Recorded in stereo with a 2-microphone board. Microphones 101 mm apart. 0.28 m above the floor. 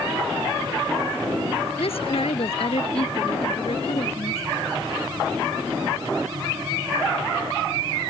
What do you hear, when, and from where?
1.8 s a woman speaking: 70° left (ahead or behind)